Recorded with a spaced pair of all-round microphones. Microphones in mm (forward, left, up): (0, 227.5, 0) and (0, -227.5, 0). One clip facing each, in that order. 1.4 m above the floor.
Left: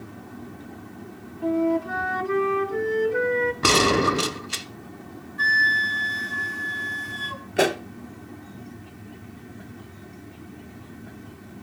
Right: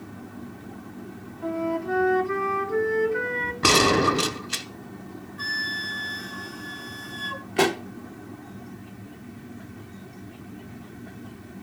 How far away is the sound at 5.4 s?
About 1.8 m.